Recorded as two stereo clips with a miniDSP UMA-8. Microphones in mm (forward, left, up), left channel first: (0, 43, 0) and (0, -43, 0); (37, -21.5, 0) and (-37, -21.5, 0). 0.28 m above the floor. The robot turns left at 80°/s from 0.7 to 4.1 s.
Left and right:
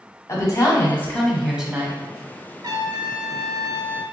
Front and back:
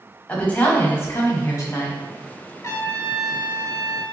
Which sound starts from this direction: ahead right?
A trumpet, at 2.6 s.